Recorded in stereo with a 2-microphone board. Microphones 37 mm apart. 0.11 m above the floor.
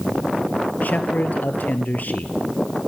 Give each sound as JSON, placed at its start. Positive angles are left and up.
{"t": 0.8, "sound": "a man speaking", "side_deg": 50, "distance_m": 2.0}